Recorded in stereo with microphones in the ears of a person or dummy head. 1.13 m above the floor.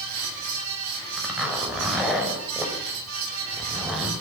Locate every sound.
0.0 s a fan: 80° right, 6.5 m
1.2 s a zipper: 5° right (ahead or behind), 5 m